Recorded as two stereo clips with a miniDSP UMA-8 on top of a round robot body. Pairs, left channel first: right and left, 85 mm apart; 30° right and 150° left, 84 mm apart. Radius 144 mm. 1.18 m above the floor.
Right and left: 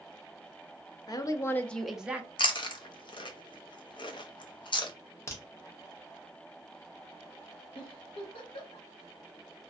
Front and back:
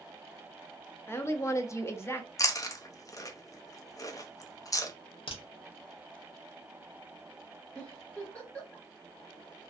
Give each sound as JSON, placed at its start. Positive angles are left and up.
{"t": 1.1, "sound": "a woman speaking", "azimuth_deg": -85, "distance_m": 0.6}
{"t": 2.4, "sound": "chewing", "azimuth_deg": -75, "distance_m": 0.5}
{"t": 5.3, "sound": "a crack", "azimuth_deg": -30, "distance_m": 0.7}
{"t": 7.8, "sound": "a giggle", "azimuth_deg": -105, "distance_m": 0.7}